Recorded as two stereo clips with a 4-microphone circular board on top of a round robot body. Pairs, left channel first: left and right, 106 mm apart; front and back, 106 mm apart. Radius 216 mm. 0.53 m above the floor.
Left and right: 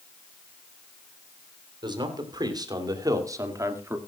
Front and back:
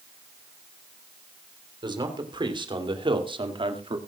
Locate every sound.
1.8 s a man speaking: 135° right, 3.5 m; by 4.0 s 155° right, 2 m